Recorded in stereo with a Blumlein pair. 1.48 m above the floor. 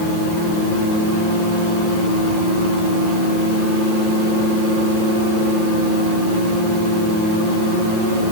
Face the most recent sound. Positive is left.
No sound to turn to.